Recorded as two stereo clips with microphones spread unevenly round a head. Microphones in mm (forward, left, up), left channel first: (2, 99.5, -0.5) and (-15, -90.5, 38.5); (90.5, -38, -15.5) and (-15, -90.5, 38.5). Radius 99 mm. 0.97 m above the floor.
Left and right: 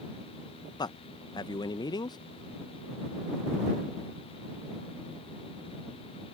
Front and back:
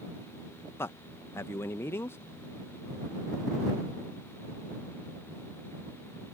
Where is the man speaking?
40° left.